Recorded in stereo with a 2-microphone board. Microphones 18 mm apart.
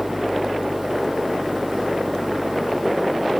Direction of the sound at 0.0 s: 10° right (ahead or behind).